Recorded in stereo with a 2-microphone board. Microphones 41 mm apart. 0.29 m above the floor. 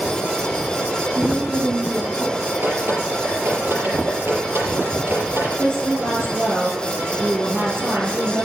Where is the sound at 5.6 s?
70° right (ahead or behind), 5.5 m.